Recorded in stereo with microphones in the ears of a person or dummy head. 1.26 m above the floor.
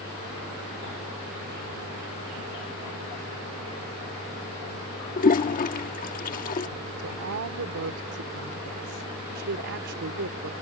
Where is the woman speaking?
75° right (ahead or behind).